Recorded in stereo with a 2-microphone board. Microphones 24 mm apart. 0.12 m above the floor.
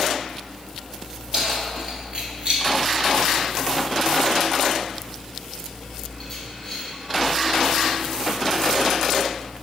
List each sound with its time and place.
1.3 s keys jangling: 40° right (ahead or behind), 2.5 m; by 6.9 s 15° left (ahead or behind), 4 m